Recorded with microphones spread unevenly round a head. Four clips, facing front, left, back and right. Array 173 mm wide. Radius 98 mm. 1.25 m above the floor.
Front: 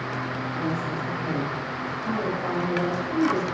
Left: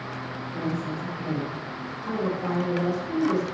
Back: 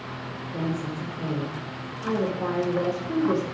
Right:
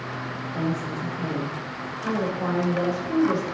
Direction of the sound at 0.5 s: 175° right.